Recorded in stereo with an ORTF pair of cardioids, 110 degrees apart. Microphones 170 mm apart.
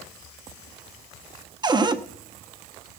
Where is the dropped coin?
No dropped coin in this recording.